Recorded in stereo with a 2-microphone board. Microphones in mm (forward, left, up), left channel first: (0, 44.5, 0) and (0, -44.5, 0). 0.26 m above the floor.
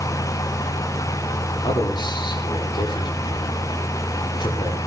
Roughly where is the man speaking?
Left.